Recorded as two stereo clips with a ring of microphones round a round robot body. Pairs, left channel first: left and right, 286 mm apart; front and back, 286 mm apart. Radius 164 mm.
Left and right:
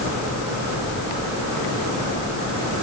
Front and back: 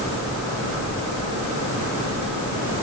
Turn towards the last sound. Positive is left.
No sound to turn to.